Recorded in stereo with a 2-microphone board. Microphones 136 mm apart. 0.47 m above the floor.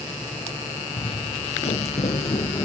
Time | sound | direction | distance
1.0 | footsteps | 40° left (ahead or behind) | 0.5 m